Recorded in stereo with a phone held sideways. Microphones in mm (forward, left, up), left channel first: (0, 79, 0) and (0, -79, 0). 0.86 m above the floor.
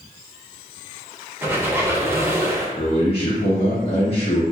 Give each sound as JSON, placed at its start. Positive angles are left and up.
{"t": 1.4, "sound": "a squeak", "side_deg": -15, "distance_m": 0.6}
{"t": 2.8, "sound": "a man speaking", "side_deg": 40, "distance_m": 0.7}